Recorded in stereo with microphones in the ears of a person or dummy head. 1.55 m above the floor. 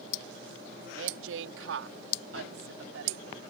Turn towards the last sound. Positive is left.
turn(degrees=-65)  # may be behind; listen again after turning